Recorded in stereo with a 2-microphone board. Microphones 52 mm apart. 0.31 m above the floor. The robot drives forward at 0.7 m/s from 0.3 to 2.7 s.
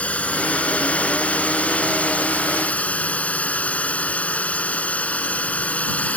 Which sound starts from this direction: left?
A drone, at 0.0 s.